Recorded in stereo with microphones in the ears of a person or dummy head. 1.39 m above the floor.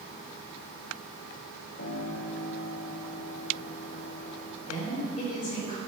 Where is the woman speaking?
50° left (ahead or behind), 4.5 m.